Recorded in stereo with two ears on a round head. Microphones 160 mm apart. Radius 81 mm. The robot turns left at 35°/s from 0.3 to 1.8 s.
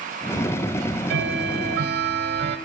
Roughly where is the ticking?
Right.